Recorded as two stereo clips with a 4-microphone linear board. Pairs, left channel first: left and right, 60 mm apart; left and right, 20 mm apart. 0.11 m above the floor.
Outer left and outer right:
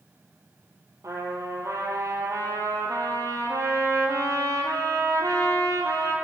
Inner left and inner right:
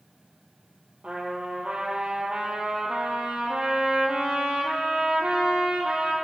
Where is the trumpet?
65° right (ahead or behind), 1.6 m.